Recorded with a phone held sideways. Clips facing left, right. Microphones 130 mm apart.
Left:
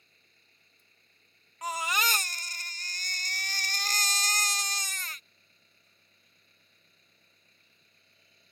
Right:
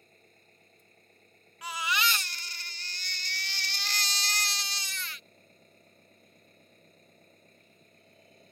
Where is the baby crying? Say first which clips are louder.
Left 1 dB; 45° left (ahead or behind).